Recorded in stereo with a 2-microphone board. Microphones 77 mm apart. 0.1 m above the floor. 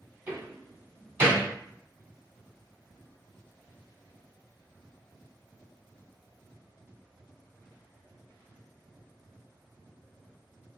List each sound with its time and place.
0.3 s a door slam: 30° right (ahead or behind), 1.6 m